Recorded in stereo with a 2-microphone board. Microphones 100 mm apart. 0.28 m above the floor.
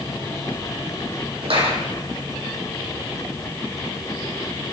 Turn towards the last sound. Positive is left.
turn(degrees=-80)